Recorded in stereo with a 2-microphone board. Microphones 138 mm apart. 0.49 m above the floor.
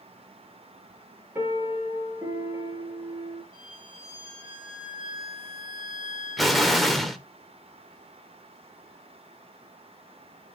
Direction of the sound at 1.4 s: 20° right (ahead or behind).